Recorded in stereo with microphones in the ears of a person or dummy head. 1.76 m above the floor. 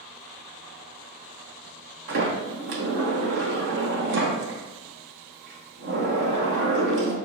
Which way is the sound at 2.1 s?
65° right (ahead or behind).